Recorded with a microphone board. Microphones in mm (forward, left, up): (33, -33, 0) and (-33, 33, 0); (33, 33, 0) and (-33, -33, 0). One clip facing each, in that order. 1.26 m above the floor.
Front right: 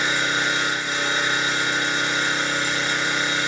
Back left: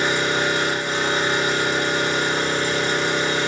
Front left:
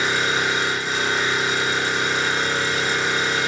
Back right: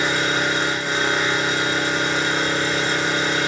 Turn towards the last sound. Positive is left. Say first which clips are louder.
# back left 3 dB, back right 1 dB
turn(degrees=180)